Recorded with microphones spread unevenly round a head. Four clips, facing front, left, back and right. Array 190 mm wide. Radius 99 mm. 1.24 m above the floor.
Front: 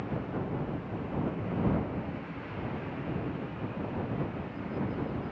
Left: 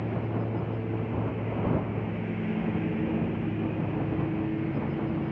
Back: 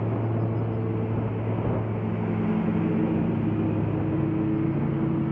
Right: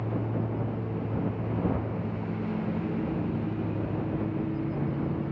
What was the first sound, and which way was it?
A lawn mower, 170° left.